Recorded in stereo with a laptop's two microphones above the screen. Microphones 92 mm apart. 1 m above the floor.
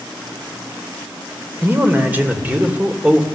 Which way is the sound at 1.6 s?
20° right (ahead or behind).